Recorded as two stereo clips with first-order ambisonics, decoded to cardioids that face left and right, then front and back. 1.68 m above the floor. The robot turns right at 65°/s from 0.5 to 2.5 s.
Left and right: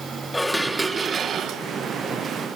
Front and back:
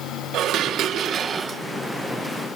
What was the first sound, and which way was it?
Dishes clattering, 175° left.